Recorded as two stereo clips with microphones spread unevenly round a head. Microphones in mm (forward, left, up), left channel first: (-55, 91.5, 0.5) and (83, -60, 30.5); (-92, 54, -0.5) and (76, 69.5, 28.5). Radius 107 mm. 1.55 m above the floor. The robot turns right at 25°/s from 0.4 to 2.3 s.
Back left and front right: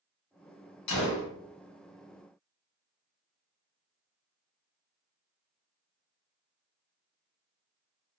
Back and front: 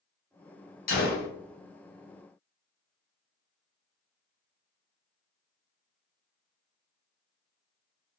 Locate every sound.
0.9 s a gunshot: 150° left, 0.7 m; by 1.3 s 160° left, 0.7 m